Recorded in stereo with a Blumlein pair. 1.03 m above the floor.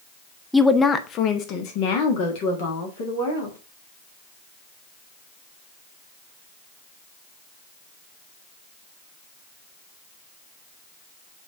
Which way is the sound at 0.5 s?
Straight ahead.